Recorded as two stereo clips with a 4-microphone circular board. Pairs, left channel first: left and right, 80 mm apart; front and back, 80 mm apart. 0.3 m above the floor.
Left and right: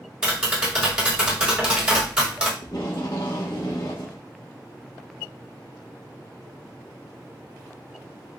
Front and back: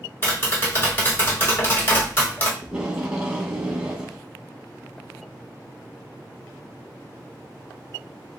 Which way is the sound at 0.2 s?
20° right.